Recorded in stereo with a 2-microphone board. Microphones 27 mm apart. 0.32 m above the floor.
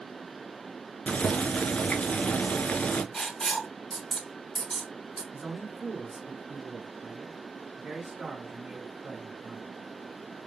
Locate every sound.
1.1 s boiling: 50° left (ahead or behind), 0.7 m
3.1 s writing: 20° left (ahead or behind), 2 m
5.3 s a man speaking: 30° right (ahead or behind), 3 m